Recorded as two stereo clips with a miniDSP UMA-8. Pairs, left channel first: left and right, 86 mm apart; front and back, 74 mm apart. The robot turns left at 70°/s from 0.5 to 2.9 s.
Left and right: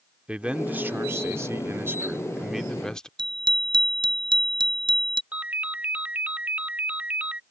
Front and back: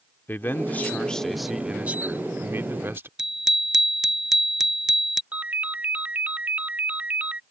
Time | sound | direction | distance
0.3 | a man speaking | 30° right | ?
3.2 | a bicycle bell | 95° right | ?
5.3 | a ringtone | 140° right | ?